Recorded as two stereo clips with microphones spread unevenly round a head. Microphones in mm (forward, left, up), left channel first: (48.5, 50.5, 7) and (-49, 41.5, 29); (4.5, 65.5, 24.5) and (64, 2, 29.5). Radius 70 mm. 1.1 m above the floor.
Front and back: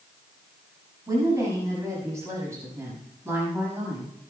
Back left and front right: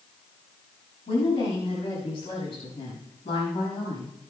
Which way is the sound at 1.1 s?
130° left.